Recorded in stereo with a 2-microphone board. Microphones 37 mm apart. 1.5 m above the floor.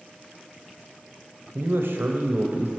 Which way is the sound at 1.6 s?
65° right (ahead or behind).